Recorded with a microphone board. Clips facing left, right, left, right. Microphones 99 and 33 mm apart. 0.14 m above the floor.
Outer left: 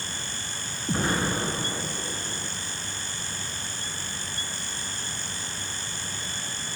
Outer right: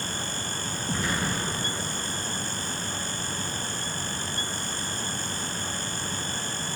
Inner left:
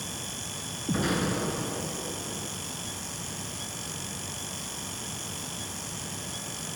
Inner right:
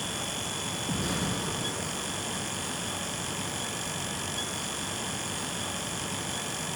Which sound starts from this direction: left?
An explosion, at 0.9 s.